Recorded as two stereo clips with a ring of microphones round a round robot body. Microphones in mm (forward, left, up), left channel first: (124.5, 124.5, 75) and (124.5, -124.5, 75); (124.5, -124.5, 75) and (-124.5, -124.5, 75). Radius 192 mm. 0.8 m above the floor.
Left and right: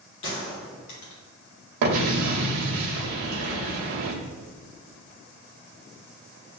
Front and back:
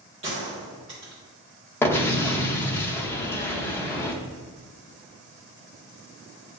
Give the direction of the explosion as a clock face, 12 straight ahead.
3 o'clock.